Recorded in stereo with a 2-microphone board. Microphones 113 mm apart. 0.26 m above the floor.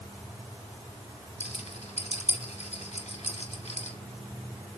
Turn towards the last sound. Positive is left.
turn(degrees=75)  # may be behind; listen again after turning